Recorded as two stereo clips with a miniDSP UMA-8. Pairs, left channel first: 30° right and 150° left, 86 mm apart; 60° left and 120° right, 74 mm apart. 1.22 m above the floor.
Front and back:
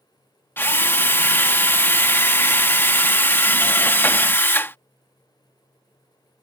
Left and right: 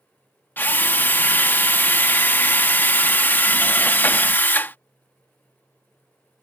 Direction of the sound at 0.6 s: 15° left.